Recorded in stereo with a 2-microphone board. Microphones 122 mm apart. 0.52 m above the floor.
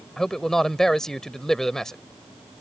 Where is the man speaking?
5° left (ahead or behind).